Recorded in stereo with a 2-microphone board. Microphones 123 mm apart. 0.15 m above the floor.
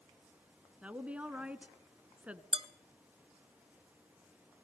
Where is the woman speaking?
10° right (ahead or behind), 1.4 m.